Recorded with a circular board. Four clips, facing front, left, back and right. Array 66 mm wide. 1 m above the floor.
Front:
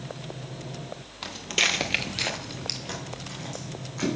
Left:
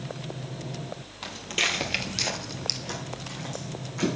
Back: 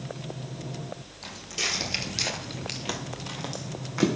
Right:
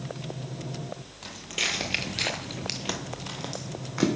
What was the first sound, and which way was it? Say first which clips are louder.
Footsteps: left 4 dB, front 7 dB; 25° left.